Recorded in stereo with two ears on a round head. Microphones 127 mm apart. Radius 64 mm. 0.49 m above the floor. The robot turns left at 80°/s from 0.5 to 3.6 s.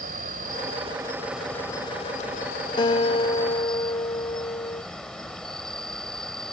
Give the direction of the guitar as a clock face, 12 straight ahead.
8 o'clock.